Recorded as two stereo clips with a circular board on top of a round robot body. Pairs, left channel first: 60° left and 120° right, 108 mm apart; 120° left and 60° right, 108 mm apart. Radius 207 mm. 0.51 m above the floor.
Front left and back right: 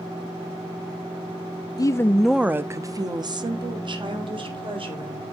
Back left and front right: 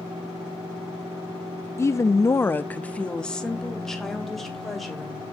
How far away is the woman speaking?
About 0.7 m.